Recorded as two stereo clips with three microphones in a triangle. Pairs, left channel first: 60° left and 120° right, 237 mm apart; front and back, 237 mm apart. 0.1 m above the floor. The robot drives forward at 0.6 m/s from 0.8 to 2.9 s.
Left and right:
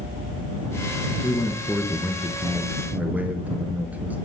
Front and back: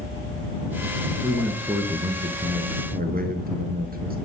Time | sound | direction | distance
1.2 | a man speaking | 65° left | 1.1 m